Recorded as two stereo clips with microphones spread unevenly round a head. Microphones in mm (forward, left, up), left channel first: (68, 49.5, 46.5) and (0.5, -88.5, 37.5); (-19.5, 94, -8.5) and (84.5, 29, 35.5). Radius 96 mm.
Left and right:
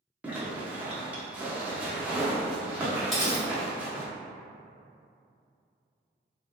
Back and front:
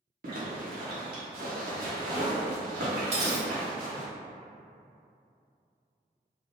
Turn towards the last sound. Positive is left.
turn(degrees=-25)